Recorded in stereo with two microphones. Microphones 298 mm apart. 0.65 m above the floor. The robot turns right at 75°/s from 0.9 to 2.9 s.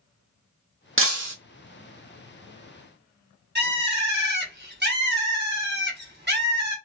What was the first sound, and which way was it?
Breaking glass, 45° right (ahead or behind).